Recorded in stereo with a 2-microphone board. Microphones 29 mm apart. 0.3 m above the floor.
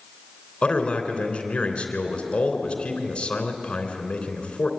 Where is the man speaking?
35° left (ahead or behind), 3 m.